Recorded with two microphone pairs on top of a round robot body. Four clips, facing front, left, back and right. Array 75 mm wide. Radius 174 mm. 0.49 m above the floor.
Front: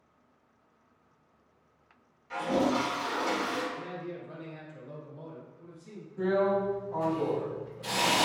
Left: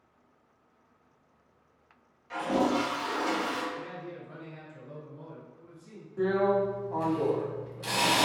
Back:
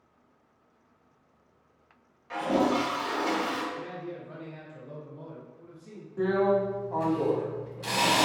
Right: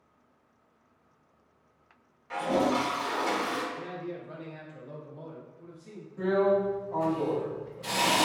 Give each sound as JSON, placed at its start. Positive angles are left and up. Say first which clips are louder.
{"t": 2.3, "sound": "a toilet flushing", "louder": "right 1 dB, back 2 dB", "azimuth_deg": -150, "distance_m": 1.3}
{"t": 3.8, "sound": "a man speaking", "louder": "right 2 dB, back 1 dB", "azimuth_deg": -70, "distance_m": 1.2}
{"t": 6.2, "sound": "a drill", "louder": "right 1 dB, back 2 dB", "azimuth_deg": 165, "distance_m": 1.2}